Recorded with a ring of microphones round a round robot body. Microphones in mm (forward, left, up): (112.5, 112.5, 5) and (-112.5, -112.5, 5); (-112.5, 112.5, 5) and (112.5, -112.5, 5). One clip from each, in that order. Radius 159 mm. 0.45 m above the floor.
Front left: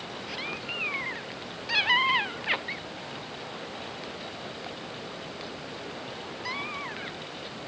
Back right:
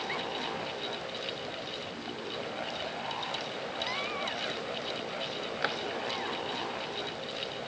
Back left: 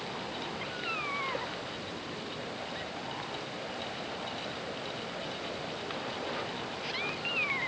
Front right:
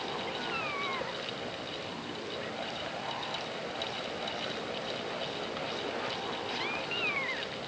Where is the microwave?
I don't hear a microwave.